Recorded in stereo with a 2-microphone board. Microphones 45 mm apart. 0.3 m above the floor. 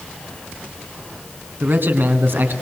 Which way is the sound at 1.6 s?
55° right (ahead or behind).